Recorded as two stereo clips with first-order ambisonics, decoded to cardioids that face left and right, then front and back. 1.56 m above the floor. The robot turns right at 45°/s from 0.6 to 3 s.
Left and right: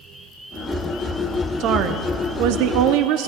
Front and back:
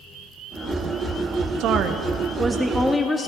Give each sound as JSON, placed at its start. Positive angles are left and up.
{"t": 1.6, "sound": "a woman speaking", "azimuth_deg": -140, "distance_m": 0.6}